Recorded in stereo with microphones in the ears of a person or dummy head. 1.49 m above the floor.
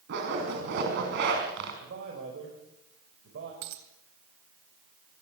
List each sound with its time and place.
0.1 s a zipper: 65° right (ahead or behind), 5 m
1.8 s a man speaking: 65° right (ahead or behind), 6 m
3.6 s a dropped coin: 65° right (ahead or behind), 3 m